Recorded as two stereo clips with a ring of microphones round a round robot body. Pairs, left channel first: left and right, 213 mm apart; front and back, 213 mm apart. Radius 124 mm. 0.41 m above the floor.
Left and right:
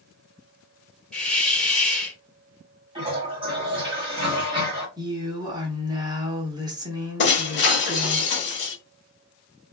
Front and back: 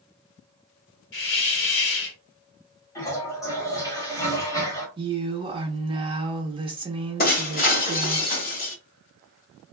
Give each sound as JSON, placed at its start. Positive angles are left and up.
{"t": 1.1, "sound": "a hiss", "azimuth_deg": 5, "distance_m": 1.3}
{"t": 3.0, "sound": "a toilet flushing", "azimuth_deg": -55, "distance_m": 1.5}
{"t": 5.0, "sound": "a woman speaking", "azimuth_deg": -140, "distance_m": 0.8}
{"t": 7.2, "sound": "breaking glass", "azimuth_deg": 50, "distance_m": 1.0}